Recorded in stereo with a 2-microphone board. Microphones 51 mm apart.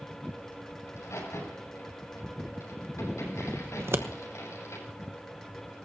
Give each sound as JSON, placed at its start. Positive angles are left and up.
{"t": 0.9, "sound": "a crack", "side_deg": 70, "distance_m": 7.5}
{"t": 3.8, "sound": "scissors", "side_deg": -55, "distance_m": 1.1}